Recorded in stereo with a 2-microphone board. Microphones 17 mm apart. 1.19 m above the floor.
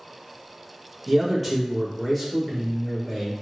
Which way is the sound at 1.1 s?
5° right (ahead or behind).